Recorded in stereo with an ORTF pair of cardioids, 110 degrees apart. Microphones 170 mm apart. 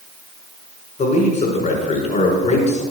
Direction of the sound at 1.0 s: 40° left.